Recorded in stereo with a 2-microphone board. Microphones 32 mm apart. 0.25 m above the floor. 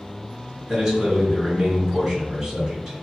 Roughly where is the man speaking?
Centre.